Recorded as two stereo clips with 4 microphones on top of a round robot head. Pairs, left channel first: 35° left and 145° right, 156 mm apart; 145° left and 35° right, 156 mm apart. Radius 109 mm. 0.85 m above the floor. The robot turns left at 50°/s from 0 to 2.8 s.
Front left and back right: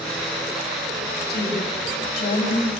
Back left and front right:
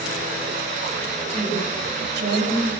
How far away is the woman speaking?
About 8 m.